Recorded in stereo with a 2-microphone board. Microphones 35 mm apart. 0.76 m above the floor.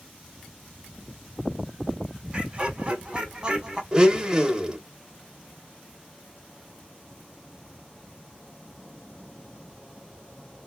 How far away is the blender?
About 0.6 m.